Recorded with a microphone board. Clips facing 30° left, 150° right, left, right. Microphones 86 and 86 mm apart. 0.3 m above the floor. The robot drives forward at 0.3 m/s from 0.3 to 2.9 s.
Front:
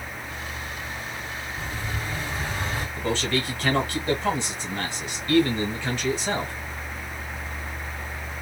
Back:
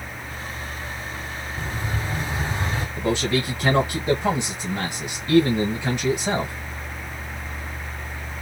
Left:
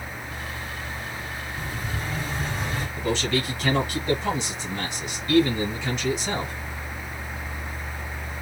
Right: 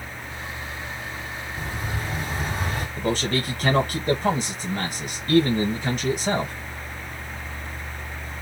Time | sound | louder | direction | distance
1.6 | an explosion | back 4 dB, right 2 dB | 85° right | 2.5 m
3.0 | a man speaking | back 4 dB, right 1 dB | 85° right | 1.6 m